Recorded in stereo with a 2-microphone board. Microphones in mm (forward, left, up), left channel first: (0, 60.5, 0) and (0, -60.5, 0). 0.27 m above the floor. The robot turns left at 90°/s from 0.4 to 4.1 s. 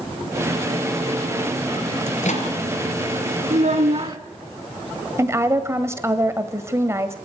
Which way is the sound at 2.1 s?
70° left (ahead or behind).